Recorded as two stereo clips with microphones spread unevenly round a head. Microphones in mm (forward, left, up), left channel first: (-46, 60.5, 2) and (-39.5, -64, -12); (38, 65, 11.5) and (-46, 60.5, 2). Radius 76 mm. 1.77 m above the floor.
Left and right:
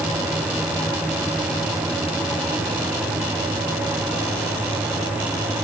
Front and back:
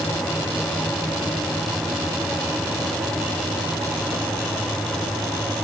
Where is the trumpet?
No trumpet in this recording.